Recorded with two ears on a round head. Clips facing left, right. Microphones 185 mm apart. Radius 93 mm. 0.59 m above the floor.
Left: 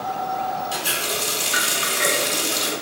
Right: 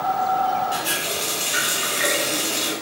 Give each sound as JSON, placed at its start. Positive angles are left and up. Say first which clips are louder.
{"t": 0.7, "sound": "a running tap", "louder": "right 1 dB", "side_deg": 65, "distance_m": 1.2}